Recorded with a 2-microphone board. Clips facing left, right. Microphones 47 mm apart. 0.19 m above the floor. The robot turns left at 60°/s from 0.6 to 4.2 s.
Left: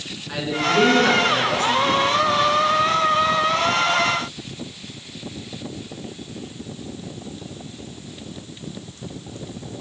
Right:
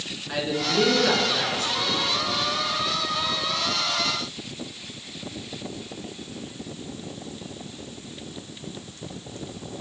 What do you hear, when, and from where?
0.3 s a man speaking: straight behind, 1.9 m; by 2.0 s 95° left, 1.9 m